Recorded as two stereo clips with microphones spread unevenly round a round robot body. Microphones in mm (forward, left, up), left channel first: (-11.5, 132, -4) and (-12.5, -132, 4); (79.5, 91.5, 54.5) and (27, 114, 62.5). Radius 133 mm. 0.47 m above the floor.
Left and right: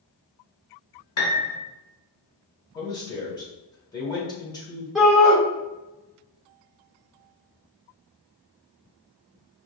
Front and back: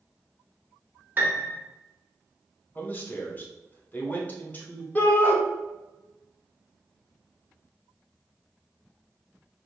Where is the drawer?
No drawer in this recording.